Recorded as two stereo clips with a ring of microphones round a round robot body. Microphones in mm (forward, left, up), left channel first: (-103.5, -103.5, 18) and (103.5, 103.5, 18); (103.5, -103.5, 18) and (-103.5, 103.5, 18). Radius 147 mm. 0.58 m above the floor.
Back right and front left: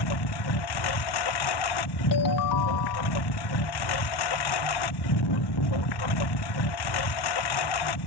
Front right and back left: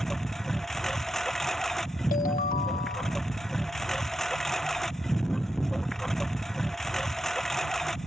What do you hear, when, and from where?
0.0 s a lawn mower: 135° right
2.1 s a ringtone: 110° right